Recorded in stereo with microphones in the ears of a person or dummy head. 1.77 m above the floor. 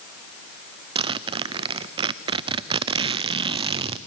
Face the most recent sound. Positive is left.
turn(degrees=-30)  # may be behind; listen again after turning